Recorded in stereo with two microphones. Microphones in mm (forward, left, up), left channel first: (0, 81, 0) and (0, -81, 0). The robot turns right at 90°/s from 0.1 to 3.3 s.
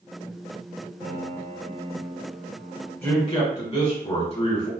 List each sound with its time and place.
1.0 s a piano: 110° right, 1.2 m; by 2.9 s 65° left, 1.2 m
3.0 s a man speaking: 15° left (ahead or behind), 1.6 m; by 4.7 s 40° left (ahead or behind), 1.6 m